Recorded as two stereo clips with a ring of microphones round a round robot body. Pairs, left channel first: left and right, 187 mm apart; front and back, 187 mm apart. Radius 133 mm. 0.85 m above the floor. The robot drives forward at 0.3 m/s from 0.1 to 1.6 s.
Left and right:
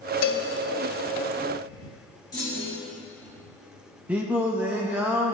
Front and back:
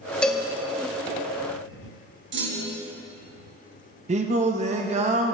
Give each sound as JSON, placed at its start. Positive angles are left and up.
{"t": 0.2, "sound": "a cowbell", "azimuth_deg": 85, "distance_m": 0.9}
{"t": 2.3, "sound": "a clunk", "azimuth_deg": 165, "distance_m": 1.3}
{"t": 4.1, "sound": "singing", "azimuth_deg": -170, "distance_m": 0.6}